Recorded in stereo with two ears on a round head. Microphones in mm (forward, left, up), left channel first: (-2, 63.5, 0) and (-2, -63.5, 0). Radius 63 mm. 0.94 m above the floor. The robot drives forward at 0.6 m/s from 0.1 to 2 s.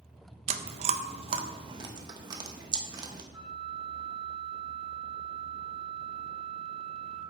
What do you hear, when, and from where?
0.5 s chewing: 45° right (ahead or behind), 0.7 m; by 3.2 s 30° right (ahead or behind), 1.0 m
3.3 s a flute: 5° left (ahead or behind), 3.5 m